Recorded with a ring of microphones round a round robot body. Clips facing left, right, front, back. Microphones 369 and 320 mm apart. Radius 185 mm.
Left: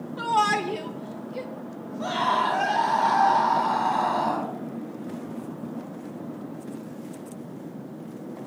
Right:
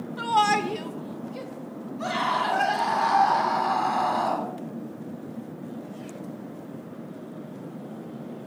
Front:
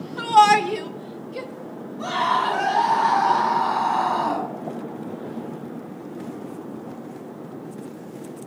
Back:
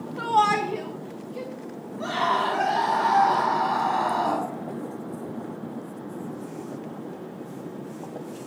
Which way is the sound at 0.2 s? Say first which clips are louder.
Right 1 dB, front 6 dB; 15° right.